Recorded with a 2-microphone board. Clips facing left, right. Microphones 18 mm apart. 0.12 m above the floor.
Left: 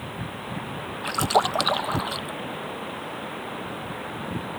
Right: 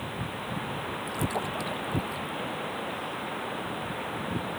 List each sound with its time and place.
1.0 s a splash: 65° left (ahead or behind)